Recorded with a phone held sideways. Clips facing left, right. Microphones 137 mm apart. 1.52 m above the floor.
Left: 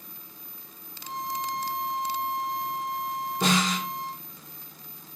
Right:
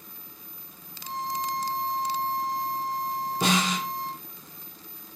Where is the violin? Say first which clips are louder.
Right 1 dB; 20° right (ahead or behind), 1.2 m.